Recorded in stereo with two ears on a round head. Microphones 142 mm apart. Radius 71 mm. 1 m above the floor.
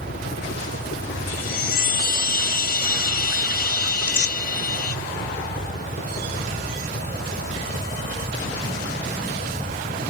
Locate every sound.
0.0 s a helicopter: 60° left (ahead or behind); by 10.1 s 25° left (ahead or behind)
1.3 s a chime: 65° left (ahead or behind)
4.0 s tearing paper: 75° left (ahead or behind)